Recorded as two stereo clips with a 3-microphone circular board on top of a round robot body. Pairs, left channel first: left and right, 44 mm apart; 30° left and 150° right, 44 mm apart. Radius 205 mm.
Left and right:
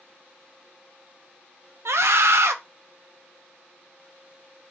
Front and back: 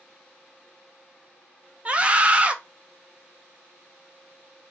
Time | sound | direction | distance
1.9 | a scream | 85° right | 0.7 m